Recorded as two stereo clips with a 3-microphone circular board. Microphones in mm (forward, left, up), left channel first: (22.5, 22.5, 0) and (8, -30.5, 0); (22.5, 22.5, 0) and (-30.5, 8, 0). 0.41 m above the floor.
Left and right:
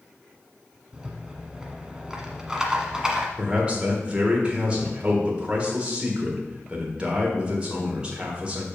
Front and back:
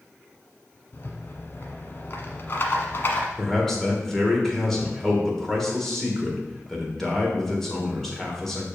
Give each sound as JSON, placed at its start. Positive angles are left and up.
{"t": 0.9, "sound": "a rattle", "azimuth_deg": -30, "distance_m": 1.1}
{"t": 3.4, "sound": "a man speaking", "azimuth_deg": -60, "distance_m": 1.5}